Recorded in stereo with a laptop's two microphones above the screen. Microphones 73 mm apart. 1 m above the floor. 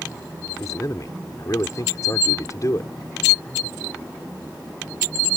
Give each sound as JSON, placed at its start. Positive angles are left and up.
{"t": 0.6, "sound": "a man speaking", "side_deg": 50}